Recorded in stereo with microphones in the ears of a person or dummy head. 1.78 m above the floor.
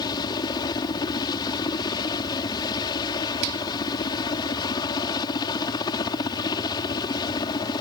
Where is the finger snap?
85° right.